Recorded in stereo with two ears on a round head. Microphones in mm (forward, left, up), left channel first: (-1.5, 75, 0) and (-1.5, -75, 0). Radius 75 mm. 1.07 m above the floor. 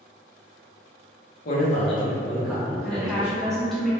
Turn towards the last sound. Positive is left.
turn(degrees=0)  # may be behind; listen again after turning